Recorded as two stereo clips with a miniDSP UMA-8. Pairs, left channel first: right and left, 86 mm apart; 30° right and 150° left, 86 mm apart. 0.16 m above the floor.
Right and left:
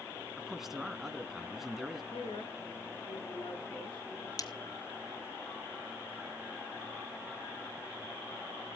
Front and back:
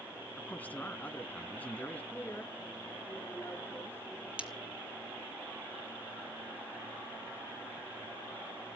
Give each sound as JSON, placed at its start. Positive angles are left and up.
{"t": 0.4, "sound": "a man speaking", "azimuth_deg": 10, "distance_m": 1.3}
{"t": 2.1, "sound": "a woman speaking", "azimuth_deg": -95, "distance_m": 7.5}
{"t": 4.4, "sound": "breaking glass", "azimuth_deg": -135, "distance_m": 1.8}